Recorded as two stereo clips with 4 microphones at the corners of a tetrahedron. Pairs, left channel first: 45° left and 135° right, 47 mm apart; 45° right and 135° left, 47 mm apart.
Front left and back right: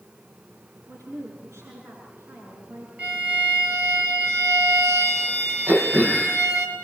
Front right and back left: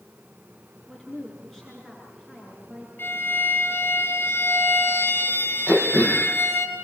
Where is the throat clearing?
100° right, 5 m.